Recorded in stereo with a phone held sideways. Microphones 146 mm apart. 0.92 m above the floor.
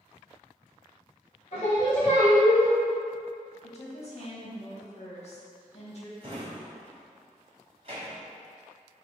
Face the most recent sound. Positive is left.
turn(degrees=-45)  # may be behind; listen again after turning